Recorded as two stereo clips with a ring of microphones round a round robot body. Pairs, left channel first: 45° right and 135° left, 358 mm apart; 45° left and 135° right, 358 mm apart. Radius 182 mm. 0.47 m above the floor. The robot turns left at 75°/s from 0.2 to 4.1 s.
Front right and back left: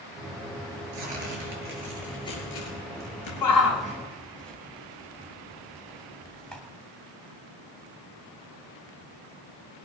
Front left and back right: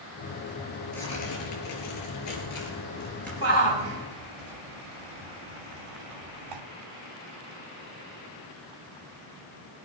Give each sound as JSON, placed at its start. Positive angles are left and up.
{"t": 0.9, "sound": "tearing paper", "azimuth_deg": 135, "distance_m": 5.0}
{"t": 3.4, "sound": "a shout", "azimuth_deg": -80, "distance_m": 3.0}